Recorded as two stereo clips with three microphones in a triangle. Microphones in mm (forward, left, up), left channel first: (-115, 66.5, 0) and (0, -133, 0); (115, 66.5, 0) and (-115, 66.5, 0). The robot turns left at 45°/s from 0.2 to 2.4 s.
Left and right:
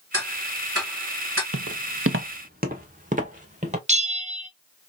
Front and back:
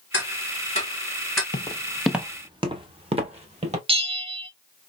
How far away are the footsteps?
About 0.6 m.